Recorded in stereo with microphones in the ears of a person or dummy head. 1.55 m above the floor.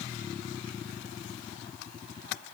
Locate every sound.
Only background noise.